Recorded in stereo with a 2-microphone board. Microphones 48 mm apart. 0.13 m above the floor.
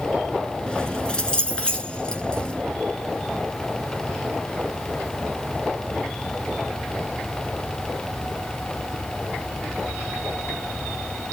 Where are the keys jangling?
20° left (ahead or behind), 1.0 m.